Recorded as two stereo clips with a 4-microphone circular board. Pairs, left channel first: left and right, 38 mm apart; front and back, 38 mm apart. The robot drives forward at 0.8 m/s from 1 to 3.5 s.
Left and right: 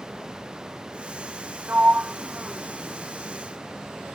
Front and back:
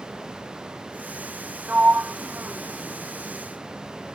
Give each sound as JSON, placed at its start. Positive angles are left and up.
{"t": 1.7, "sound": "a sliding door", "azimuth_deg": -130}